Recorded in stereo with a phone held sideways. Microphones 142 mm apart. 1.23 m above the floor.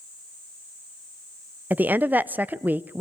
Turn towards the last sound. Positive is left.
turn(degrees=-10)  # may be behind; listen again after turning